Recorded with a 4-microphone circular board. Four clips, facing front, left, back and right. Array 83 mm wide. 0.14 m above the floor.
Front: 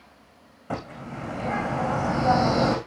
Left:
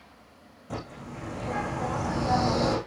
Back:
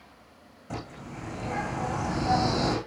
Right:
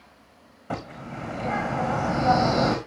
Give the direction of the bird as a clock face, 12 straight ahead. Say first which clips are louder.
Right 4 dB, front 5 dB; 2 o'clock.